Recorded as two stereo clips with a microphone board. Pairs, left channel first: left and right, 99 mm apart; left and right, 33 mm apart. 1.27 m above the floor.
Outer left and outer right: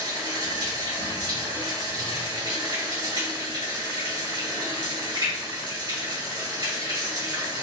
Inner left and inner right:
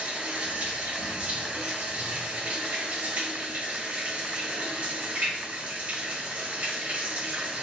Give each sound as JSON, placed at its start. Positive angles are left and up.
{"t": 0.0, "sound": "running water", "side_deg": -50, "distance_m": 1.5}